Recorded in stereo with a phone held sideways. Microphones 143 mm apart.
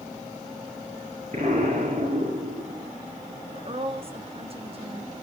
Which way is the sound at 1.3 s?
60° right (ahead or behind).